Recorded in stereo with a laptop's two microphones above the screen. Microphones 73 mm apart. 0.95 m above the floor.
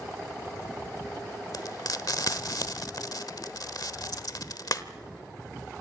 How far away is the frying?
About 1.1 m.